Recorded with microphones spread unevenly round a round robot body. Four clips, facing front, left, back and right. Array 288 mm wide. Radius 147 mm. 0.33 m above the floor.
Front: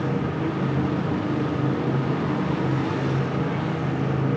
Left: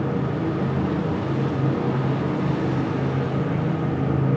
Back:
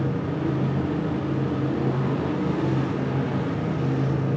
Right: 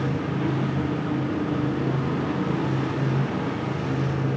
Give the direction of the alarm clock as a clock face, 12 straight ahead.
No alarm clock in this recording.